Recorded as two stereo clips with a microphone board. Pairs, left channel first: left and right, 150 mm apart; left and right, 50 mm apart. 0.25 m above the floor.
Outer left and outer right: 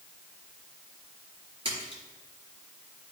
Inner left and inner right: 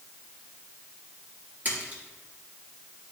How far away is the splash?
About 3.5 m.